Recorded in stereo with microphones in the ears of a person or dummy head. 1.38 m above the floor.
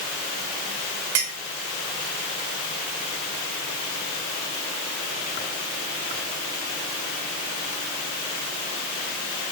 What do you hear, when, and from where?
1.1 s a clink: 70° right (ahead or behind), 1.1 m